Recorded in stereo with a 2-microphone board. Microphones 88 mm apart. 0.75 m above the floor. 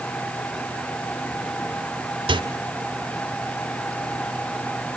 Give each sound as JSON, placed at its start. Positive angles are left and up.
{"t": 2.3, "sound": "a microwave", "side_deg": -75, "distance_m": 2.5}